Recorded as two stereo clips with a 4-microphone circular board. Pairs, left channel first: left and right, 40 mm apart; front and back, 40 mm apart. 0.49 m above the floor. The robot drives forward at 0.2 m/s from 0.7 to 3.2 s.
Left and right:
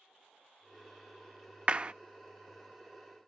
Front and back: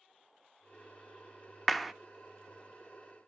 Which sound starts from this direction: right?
A clap, at 1.7 s.